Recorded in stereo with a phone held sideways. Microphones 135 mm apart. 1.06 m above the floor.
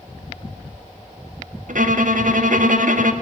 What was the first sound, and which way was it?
A violin, 75° right (ahead or behind).